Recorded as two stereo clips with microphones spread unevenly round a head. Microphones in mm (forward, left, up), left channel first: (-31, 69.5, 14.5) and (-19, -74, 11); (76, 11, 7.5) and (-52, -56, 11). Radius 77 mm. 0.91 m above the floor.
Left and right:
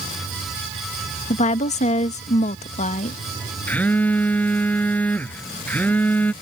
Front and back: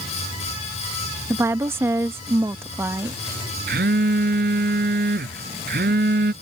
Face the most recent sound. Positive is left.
turn(degrees=175)